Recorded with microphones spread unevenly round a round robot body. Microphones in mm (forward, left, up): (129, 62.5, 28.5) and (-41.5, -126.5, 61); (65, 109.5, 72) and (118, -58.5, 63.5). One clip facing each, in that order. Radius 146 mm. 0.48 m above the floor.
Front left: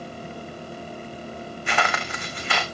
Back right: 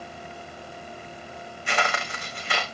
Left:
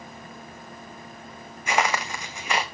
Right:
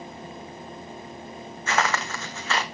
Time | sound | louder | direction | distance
1.7 | footsteps | front left 1 dB, left 1 dB | 35° left | 1.9 m